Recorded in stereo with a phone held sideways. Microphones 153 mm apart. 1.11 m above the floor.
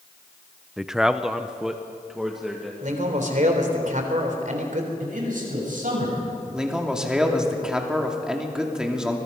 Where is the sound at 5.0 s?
60° right (ahead or behind), 7.5 m.